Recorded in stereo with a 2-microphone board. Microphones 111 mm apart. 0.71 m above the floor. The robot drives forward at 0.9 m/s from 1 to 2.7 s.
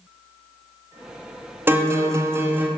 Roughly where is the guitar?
Centre.